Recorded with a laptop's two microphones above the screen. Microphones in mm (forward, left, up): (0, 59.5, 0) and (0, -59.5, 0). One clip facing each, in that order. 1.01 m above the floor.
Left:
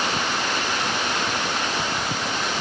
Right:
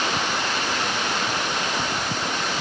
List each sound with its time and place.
Only background noise.